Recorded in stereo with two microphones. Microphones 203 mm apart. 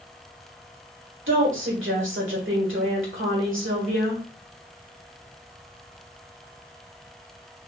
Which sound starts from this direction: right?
A woman speaking, at 1.3 s.